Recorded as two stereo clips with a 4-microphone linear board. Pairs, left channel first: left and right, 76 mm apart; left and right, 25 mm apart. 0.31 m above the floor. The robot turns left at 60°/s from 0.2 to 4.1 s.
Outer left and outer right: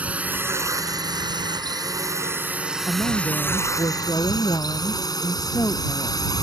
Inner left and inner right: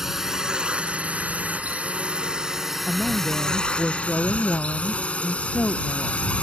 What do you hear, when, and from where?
0.0 s a drone: 20° right (ahead or behind); by 6.4 s 55° left (ahead or behind)
2.9 s a woman speaking: 120° left; by 6.3 s 45° left